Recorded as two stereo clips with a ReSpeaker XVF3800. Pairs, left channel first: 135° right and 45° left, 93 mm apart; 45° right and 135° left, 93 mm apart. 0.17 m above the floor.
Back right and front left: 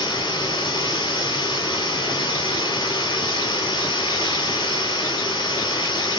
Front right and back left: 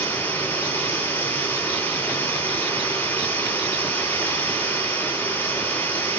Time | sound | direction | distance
0.0 | running water | 110° right | 3.5 m